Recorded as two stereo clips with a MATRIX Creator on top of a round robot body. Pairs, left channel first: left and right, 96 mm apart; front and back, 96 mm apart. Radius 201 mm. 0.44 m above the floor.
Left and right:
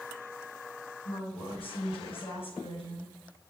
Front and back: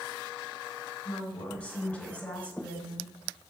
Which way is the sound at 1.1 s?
75° left.